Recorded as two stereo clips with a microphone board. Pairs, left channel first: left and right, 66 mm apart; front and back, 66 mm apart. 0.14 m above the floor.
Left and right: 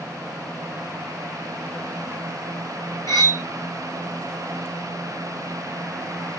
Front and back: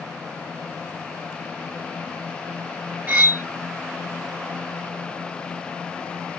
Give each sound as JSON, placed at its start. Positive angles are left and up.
{"t": 3.1, "sound": "cutlery clinking", "azimuth_deg": 110, "distance_m": 1.4}